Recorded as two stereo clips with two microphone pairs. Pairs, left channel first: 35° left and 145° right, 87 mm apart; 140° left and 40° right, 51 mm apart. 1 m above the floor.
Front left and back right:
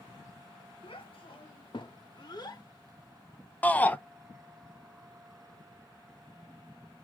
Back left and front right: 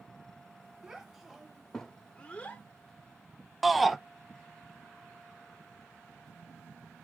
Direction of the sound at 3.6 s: 45° left.